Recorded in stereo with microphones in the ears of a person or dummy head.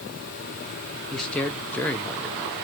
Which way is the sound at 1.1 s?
10° left (ahead or behind).